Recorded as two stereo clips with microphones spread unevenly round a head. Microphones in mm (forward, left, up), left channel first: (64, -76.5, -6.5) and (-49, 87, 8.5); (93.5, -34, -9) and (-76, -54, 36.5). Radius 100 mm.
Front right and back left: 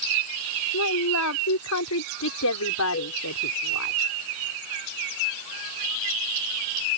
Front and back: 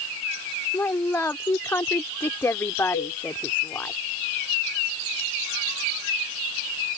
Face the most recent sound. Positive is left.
turn(degrees=-10)